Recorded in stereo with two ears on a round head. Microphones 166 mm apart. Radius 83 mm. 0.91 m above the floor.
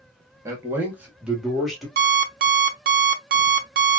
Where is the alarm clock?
50° right (ahead or behind), 0.7 m.